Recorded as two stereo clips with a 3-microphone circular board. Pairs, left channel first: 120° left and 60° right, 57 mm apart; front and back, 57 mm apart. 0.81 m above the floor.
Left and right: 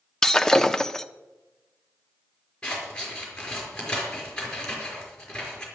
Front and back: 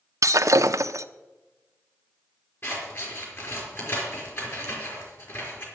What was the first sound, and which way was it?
Breaking glass, 160° right.